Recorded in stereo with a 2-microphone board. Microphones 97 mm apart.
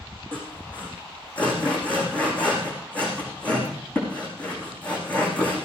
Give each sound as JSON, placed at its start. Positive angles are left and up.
{"t": 0.3, "sound": "sawing", "side_deg": 15, "distance_m": 6.0}